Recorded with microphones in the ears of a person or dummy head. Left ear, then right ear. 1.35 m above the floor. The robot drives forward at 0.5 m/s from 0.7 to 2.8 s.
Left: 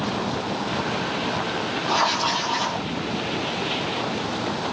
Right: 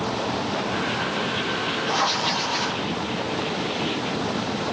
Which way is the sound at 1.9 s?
70° left (ahead or behind).